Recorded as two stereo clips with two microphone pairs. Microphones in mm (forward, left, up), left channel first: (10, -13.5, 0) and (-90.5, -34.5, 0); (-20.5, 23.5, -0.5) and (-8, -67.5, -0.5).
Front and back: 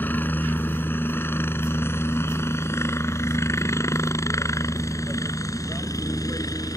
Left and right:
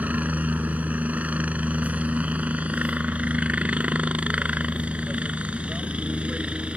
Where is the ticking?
No ticking in this recording.